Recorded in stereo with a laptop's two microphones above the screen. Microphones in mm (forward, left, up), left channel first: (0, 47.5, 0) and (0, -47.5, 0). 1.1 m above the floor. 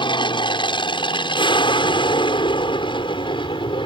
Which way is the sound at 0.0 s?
55° left (ahead or behind).